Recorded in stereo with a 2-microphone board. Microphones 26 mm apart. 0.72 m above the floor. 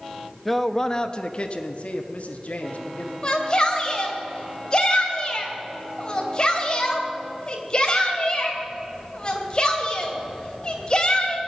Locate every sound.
0.5 s a man speaking: centre (ahead or behind), 0.8 m; by 3.1 s 65° left (ahead or behind), 1.9 m
3.2 s a shout: 30° left (ahead or behind), 3 m